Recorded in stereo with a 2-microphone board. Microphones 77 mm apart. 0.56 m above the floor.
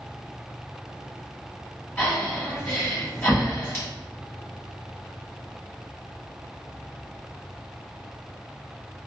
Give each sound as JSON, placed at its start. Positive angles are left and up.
{"t": 2.0, "sound": "breathing", "side_deg": 25, "distance_m": 1.2}